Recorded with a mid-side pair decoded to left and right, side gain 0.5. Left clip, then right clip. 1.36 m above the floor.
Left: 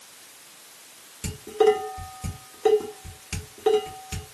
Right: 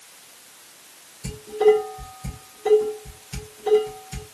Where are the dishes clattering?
65° left, 2.5 m.